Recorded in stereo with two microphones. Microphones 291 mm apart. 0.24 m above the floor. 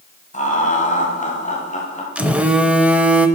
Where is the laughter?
25° left (ahead or behind), 1.8 m.